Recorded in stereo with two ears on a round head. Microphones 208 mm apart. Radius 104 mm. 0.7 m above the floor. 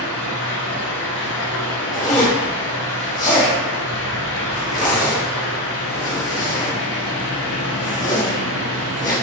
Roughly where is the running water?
Left.